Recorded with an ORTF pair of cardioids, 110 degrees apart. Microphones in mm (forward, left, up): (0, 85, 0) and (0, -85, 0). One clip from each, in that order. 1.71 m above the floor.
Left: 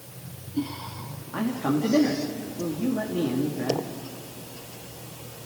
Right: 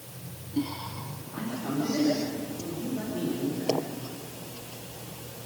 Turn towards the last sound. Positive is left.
turn(degrees=65)